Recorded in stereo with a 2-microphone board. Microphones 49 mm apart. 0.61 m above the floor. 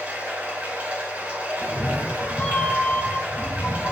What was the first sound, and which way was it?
Running water, 30° right (ahead or behind).